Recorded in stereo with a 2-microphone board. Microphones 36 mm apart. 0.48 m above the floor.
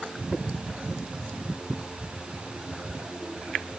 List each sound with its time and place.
Only background noise.